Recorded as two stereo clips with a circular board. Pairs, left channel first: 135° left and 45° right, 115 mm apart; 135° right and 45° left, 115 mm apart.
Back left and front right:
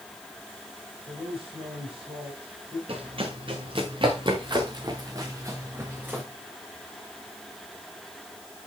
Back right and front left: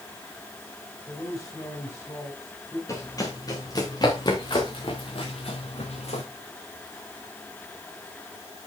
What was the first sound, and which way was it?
A man speaking, 80° right.